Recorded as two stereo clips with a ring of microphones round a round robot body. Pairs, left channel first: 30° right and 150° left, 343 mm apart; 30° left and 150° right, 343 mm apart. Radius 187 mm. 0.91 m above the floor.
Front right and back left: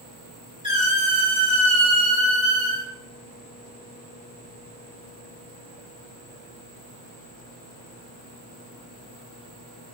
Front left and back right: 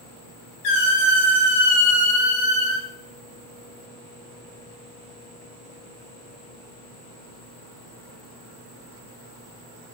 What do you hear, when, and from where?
0.6 s a squeak: 75° left, 1.4 m